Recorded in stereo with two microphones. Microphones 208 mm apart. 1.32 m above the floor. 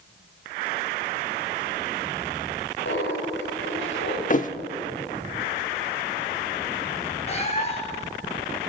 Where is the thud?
40° left (ahead or behind), 1.1 m.